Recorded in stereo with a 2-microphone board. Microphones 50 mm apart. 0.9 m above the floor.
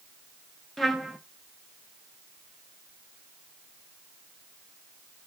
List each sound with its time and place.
0.8 s a trumpet: 5° left (ahead or behind), 1.0 m